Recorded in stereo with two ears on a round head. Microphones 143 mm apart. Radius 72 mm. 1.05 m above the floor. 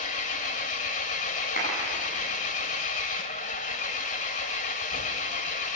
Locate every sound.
0.0 s an engine running: 50° left (ahead or behind), 1.3 m
1.6 s a clap: 50° left (ahead or behind), 9 m